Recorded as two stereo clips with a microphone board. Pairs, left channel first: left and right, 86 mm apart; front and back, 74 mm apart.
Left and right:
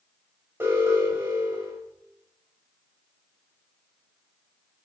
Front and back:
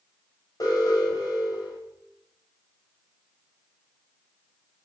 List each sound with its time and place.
0.6 s an alarm: 30° right, 7.5 m